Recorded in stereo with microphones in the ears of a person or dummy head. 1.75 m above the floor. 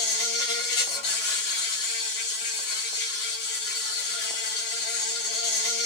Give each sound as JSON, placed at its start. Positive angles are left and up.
{"t": 0.0, "sound": "an insect", "side_deg": 55, "distance_m": 1.2}